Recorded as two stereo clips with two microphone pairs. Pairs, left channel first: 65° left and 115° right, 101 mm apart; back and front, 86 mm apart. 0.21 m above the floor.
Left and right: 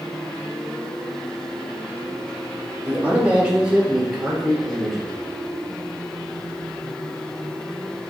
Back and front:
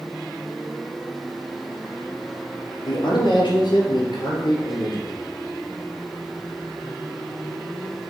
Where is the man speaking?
170° left, 3.5 m; by 5.1 s 150° left, 3.5 m.